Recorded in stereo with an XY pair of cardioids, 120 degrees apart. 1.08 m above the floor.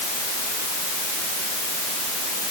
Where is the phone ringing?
I don't hear a phone ringing.